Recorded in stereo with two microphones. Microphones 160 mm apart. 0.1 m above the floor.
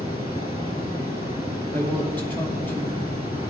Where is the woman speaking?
15° left (ahead or behind), 2.5 m.